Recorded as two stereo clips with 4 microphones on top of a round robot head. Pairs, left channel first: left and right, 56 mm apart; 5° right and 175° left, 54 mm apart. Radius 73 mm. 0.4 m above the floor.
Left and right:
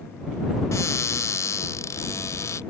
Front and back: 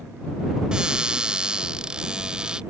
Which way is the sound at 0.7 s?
100° left.